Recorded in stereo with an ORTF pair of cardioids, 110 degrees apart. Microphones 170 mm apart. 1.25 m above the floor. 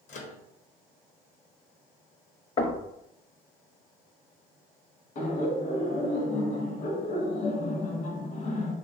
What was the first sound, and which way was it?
A microwave, 50° left.